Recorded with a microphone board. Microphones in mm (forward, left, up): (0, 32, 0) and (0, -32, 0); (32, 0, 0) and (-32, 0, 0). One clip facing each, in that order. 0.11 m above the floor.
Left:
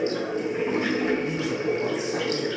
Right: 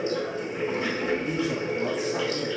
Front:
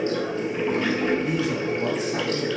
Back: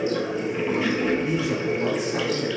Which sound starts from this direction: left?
Running water, at 0.0 s.